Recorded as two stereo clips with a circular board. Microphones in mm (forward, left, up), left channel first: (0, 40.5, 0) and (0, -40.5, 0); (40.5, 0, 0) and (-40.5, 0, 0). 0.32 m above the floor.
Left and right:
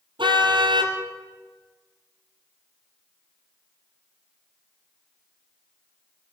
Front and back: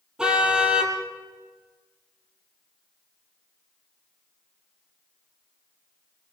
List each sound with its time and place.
0.2 s a car horn: 100° right, 4.5 m